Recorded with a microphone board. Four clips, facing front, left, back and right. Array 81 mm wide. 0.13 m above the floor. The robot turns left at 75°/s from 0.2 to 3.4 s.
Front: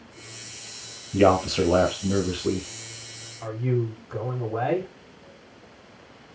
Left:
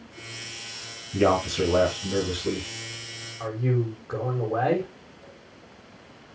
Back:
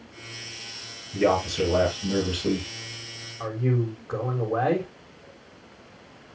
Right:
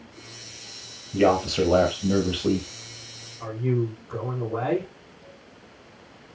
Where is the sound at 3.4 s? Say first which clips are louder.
Right 1 dB, even; 150° left, 5.5 m.